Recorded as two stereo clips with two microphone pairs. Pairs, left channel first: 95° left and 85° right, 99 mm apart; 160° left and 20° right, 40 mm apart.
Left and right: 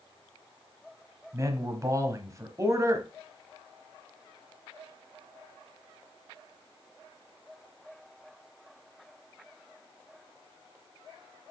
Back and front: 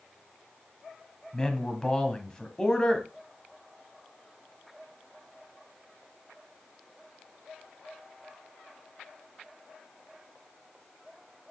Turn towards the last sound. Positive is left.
turn(degrees=-130)